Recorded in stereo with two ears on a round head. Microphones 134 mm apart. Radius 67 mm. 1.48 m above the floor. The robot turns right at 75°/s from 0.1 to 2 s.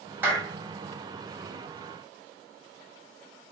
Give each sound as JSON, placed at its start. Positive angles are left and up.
{"t": 0.2, "sound": "a clap", "side_deg": -10, "distance_m": 1.3}